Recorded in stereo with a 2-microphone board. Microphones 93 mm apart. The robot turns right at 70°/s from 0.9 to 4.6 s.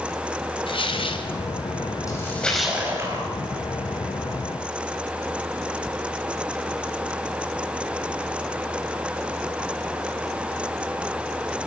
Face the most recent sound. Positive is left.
turn(degrees=-40)